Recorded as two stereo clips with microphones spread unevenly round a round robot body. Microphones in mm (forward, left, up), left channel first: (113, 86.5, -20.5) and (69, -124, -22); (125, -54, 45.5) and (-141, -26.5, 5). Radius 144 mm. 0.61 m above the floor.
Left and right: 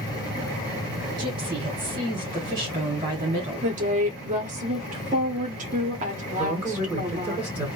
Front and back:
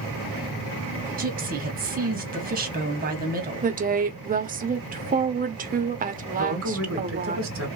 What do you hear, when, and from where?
1.2 s a woman speaking: 165° right, 1.3 m
3.6 s a woman speaking: 150° right, 0.8 m
6.4 s a man speaking: 175° left, 1.8 m